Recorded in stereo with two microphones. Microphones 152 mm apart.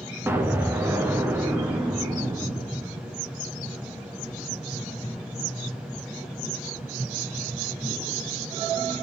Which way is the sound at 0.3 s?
15° right (ahead or behind).